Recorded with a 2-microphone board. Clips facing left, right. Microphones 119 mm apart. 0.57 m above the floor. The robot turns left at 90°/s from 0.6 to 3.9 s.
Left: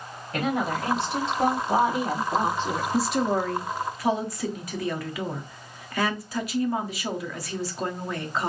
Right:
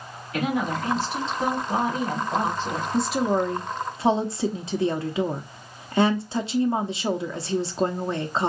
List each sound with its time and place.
0.3 s a woman speaking: 135° left, 3 m; by 2.8 s 65° right, 3 m
2.9 s a woman speaking: 5° left (ahead or behind), 0.8 m; by 8.5 s 25° right (ahead or behind), 0.8 m